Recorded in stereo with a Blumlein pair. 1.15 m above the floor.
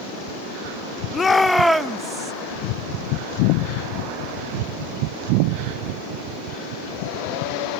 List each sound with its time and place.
1.1 s a shout: 20° left, 1.1 m; by 2.3 s 20° right, 1.5 m